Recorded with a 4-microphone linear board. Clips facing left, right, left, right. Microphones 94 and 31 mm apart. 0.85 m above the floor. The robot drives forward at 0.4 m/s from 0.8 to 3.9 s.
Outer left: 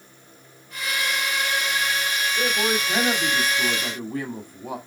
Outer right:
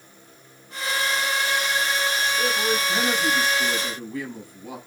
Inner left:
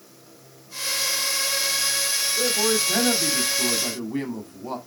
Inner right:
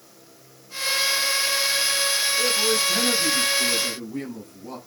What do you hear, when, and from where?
2.4 s a man speaking: 40° left (ahead or behind), 3 m; by 4.8 s 50° left (ahead or behind), 2.5 m